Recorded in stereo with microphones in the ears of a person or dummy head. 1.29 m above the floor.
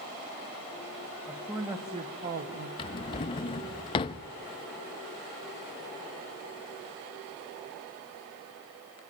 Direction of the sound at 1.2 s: 5° right (ahead or behind).